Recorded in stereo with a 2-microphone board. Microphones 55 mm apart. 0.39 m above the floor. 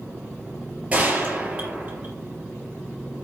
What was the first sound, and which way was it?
A gunshot, 25° right (ahead or behind).